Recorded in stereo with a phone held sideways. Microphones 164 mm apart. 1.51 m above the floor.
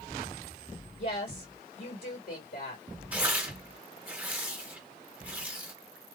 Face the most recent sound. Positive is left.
turn(degrees=-10)  # may be behind; listen again after turning